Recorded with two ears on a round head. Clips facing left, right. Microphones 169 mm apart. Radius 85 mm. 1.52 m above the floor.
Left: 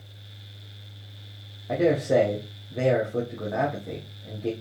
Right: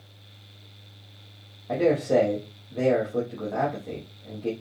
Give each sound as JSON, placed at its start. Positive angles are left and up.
{"t": 1.7, "sound": "a man speaking", "side_deg": 5, "distance_m": 1.1}